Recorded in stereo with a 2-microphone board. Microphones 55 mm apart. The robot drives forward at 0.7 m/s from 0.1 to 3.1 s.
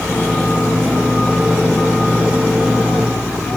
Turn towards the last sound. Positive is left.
No sound to turn to.